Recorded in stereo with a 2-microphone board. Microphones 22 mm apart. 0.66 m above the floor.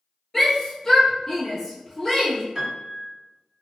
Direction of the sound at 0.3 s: 20° left (ahead or behind).